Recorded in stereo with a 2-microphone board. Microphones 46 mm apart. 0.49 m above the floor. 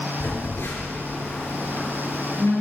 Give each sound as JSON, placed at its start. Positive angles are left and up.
{"t": 0.2, "sound": "a phone buzzing", "side_deg": 55, "distance_m": 5.0}